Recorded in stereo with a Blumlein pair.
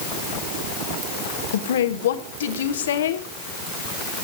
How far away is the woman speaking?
About 1.4 m.